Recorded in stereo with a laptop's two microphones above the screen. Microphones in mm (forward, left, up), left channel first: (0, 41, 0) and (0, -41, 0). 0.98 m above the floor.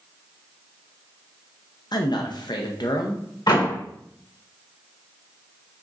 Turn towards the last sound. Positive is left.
turn(degrees=60)  # may be behind; listen again after turning